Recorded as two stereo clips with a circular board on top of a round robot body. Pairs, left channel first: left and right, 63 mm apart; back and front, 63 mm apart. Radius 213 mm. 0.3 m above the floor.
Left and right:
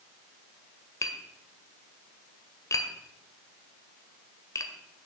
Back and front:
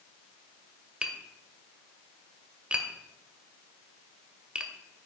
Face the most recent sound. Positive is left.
turn(degrees=70)